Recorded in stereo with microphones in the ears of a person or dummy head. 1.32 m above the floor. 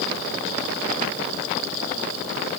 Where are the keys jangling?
I don't hear keys jangling.